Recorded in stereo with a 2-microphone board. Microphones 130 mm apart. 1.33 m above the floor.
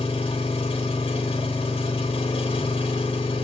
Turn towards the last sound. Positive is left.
turn(degrees=45)  # may be behind; listen again after turning